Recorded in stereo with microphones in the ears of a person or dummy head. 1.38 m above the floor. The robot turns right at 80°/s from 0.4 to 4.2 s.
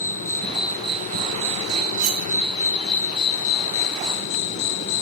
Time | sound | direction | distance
0.0 | an insect | 165° left | ?
2.0 | cutlery clinking | 75° right (ahead or behind) | ?